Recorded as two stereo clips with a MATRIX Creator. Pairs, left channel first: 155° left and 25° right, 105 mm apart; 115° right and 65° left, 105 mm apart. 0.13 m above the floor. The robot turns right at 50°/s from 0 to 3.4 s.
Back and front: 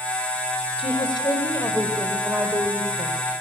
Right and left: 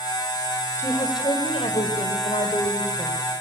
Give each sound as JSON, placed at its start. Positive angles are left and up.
{"t": 0.8, "sound": "a woman speaking", "azimuth_deg": 180, "distance_m": 4.5}